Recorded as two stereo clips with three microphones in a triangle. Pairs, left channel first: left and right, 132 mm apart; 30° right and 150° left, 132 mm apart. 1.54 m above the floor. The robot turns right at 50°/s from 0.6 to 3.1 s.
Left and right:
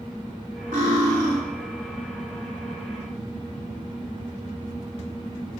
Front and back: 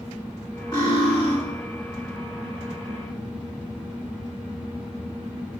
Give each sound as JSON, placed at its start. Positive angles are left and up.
{"t": 0.7, "sound": "cutlery clinking", "azimuth_deg": -90, "distance_m": 2.0}